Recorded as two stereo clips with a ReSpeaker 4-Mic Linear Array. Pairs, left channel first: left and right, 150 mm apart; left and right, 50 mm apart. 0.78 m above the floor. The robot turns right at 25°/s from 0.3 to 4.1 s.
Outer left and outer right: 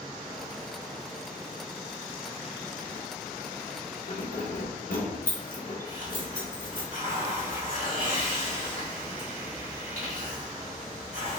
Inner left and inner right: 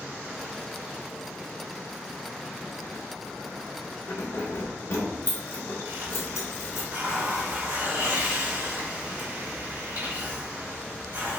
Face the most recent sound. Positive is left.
turn(degrees=-60)  # may be behind; listen again after turning